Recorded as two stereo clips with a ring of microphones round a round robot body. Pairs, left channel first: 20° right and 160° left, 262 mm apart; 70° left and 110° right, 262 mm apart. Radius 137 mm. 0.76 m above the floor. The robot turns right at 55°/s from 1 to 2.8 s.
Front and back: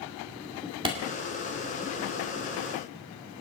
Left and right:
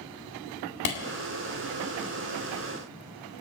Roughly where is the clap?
Left.